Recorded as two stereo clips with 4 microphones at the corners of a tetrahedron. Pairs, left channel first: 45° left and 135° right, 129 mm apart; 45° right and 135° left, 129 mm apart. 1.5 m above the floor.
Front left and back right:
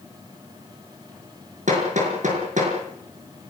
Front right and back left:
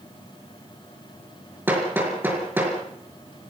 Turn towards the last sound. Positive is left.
turn(degrees=-150)